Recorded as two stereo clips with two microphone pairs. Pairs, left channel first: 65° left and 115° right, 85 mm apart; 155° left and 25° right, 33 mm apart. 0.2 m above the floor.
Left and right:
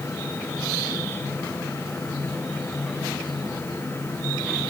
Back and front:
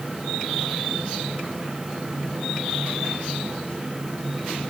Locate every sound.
Only background noise.